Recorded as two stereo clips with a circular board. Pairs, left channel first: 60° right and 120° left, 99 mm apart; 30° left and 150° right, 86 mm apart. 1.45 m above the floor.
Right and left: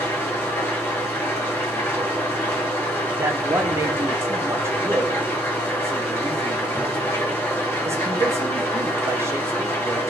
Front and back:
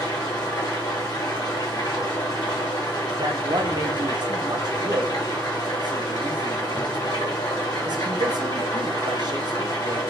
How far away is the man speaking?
About 0.6 m.